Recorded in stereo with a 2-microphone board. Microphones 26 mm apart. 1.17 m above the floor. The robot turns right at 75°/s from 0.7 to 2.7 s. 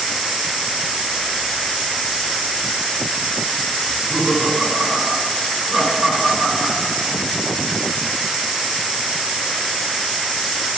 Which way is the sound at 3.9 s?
15° right (ahead or behind).